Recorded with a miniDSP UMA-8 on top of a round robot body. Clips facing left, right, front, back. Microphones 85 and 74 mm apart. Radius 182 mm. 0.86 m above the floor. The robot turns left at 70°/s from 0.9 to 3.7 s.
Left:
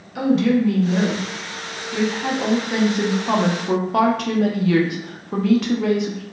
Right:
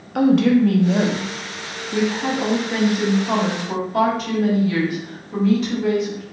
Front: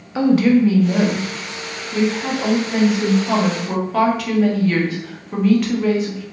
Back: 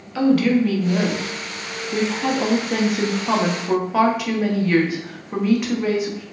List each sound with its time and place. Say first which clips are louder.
0.1 s a woman speaking: right 3 dB, front 3 dB; 65° right, 0.8 m; by 6.2 s 100° left, 0.8 m